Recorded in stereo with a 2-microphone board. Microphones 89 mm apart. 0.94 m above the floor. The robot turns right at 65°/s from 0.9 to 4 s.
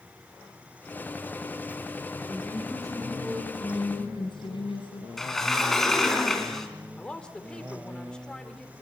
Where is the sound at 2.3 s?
5° left, 9 m; by 5.1 s 115° left, 9 m.